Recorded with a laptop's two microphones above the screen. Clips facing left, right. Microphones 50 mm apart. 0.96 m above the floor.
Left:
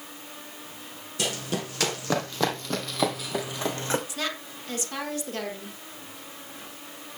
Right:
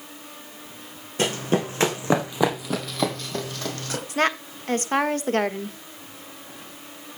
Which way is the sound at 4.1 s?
45° right (ahead or behind).